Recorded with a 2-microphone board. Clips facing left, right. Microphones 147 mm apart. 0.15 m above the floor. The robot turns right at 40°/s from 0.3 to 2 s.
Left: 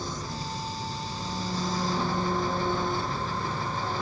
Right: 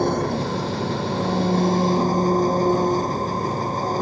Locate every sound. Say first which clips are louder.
0.0 s an engine running: right 14 dB; 110° right; by 4.0 s 45° right